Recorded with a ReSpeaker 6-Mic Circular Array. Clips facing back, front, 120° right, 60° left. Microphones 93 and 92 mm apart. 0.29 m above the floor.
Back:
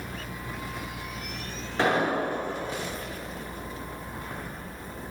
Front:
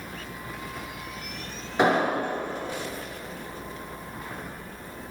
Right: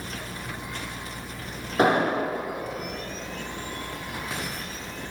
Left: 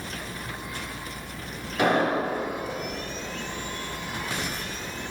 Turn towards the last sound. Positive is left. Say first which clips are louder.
# front 2 dB, right 1 dB
turn(degrees=-75)